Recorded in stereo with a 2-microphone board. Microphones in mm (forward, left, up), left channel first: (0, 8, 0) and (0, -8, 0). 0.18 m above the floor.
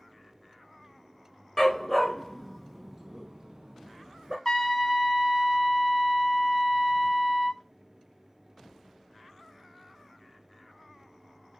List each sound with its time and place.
1.6 s a dog barking: 25° left (ahead or behind), 0.9 m; by 4.3 s 60° right (ahead or behind), 1.1 m
4.5 s a trumpet: 25° left (ahead or behind), 0.8 m